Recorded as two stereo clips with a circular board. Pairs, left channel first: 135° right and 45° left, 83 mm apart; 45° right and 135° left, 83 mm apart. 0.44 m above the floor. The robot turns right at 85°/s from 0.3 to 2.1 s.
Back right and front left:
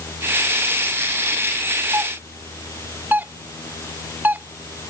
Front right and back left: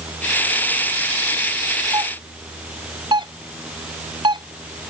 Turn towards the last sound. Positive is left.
turn(degrees=115)